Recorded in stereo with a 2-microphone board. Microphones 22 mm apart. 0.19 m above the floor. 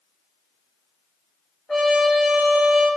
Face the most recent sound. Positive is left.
turn(degrees=40)  # may be behind; listen again after turning